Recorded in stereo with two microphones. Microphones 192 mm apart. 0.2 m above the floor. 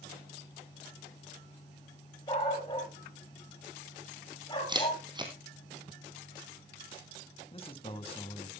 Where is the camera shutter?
20° right (ahead or behind), 2.5 m.